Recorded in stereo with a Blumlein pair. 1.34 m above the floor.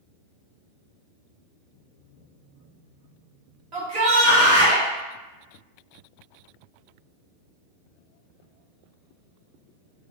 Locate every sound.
3.7 s a shout: 40° right, 1.2 m